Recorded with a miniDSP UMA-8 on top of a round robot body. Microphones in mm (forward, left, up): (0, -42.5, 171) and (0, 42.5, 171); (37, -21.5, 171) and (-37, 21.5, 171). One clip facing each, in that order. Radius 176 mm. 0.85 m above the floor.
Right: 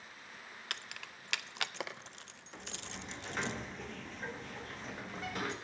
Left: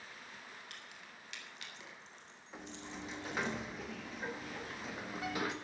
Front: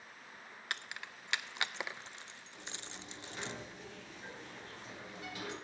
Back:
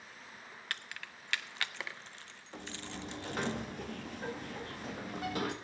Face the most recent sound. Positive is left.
turn(degrees=175)